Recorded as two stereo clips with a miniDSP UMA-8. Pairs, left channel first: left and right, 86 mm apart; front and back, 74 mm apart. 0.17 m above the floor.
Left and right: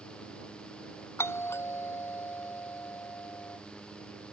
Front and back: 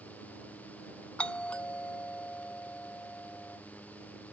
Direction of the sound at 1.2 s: 60° left.